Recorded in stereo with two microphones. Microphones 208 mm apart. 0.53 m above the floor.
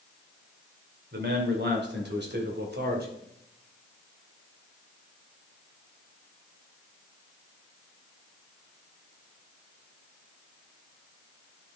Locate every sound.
1.1 s a man speaking: 55° right (ahead or behind), 2.5 m; by 3.1 s 50° right (ahead or behind), 2 m